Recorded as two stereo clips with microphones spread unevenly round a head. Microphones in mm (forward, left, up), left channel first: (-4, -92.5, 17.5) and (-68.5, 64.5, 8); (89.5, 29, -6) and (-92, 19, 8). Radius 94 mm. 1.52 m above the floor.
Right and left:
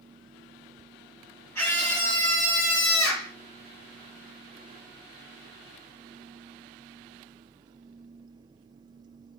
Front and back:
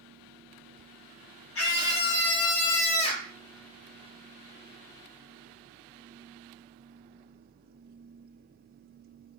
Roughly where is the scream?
Ahead.